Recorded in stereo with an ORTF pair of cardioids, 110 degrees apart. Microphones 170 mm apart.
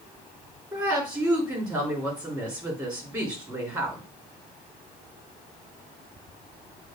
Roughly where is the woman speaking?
Ahead right.